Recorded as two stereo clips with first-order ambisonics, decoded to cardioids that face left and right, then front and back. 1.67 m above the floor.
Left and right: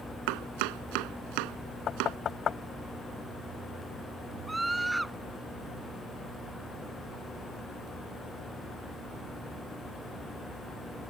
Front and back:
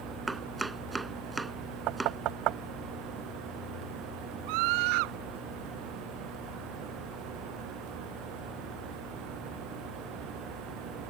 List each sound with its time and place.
0.3 s chopping: 100° right
1.9 s knocking: 150° left
4.5 s a scream: 175° right